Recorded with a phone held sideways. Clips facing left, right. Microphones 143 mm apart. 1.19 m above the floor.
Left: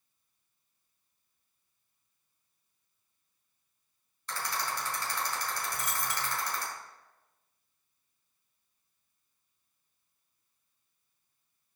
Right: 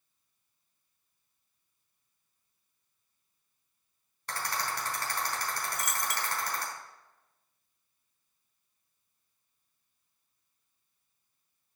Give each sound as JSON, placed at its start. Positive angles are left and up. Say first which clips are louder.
{"t": 4.3, "sound": "a rattle", "louder": "right 1 dB", "side_deg": -60, "distance_m": 4.5}
{"t": 5.7, "sound": "a dropped coin", "louder": "right 1 dB", "side_deg": 30, "distance_m": 0.6}